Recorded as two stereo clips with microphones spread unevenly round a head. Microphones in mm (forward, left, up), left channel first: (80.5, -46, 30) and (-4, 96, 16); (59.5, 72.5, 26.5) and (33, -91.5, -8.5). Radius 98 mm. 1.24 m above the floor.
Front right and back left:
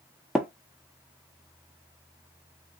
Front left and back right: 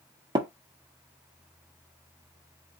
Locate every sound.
0.3 s tapping: 155° right, 0.9 m